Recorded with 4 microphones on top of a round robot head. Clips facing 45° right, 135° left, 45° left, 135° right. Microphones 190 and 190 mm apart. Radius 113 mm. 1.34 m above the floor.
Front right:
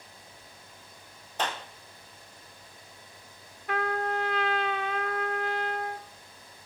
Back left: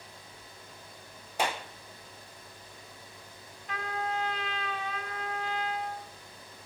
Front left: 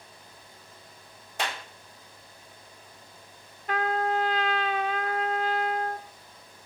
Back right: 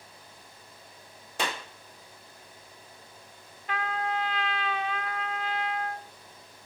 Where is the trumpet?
5° right, 1.2 m.